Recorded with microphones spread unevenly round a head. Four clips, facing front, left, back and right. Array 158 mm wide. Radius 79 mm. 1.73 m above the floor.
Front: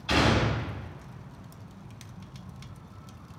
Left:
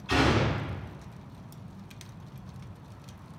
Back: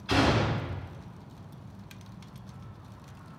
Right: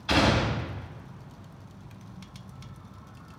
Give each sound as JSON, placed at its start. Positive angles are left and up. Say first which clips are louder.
{"t": 0.1, "sound": "a gunshot", "louder": "right 1 dB, even", "azimuth_deg": -65, "distance_m": 6.5}